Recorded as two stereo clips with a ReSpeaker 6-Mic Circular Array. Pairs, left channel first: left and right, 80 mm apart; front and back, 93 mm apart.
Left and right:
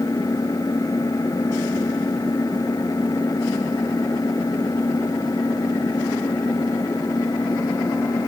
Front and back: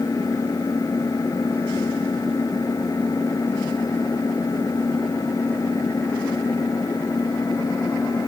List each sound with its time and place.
0.0 s an engine running: 50° left